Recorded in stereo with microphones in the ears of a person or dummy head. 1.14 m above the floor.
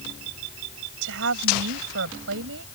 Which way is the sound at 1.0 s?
75° right (ahead or behind).